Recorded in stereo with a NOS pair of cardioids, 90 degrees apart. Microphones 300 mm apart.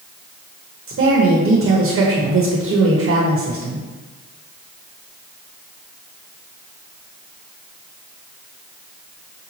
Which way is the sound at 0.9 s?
45° right.